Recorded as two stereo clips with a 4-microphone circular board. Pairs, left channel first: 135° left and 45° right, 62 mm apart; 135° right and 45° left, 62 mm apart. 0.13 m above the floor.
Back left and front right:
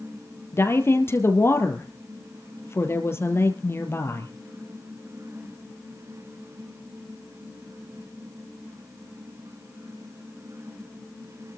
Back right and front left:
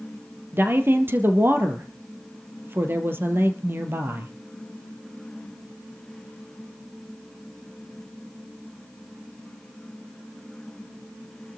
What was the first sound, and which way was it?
A woman speaking, 95° left.